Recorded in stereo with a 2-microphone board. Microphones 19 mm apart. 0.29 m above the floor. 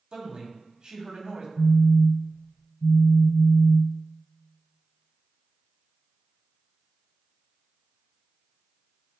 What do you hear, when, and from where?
0.1 s a man speaking: 45° right (ahead or behind), 2.0 m
1.6 s a phone buzzing: 70° left (ahead or behind), 3 m